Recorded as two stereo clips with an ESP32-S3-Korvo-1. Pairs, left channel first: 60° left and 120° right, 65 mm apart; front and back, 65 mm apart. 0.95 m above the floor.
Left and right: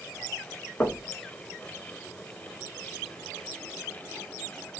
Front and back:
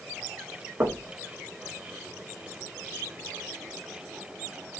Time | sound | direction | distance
0.8 | knocking | 125° left | 1.1 m